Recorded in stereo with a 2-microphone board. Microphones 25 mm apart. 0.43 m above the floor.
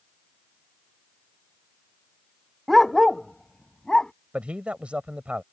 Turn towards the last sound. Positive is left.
turn(degrees=-55)  # may be behind; listen again after turning